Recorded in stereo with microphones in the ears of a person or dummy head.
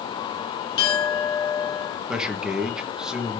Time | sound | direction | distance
0.8 | a clink | 35° left (ahead or behind) | 1.3 m
2.1 | a man speaking | centre (ahead or behind) | 0.6 m